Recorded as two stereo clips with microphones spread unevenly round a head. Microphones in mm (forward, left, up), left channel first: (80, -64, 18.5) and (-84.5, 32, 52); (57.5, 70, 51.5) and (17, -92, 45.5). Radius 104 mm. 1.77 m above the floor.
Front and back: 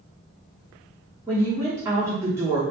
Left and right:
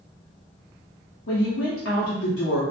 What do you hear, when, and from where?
1.3 s a woman speaking: 75° left, 0.7 m